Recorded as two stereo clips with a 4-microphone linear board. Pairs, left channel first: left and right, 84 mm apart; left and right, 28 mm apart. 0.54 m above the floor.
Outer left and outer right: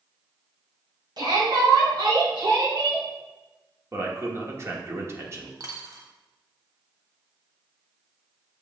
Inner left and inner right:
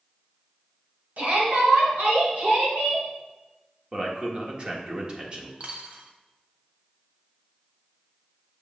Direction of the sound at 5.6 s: 45° right (ahead or behind).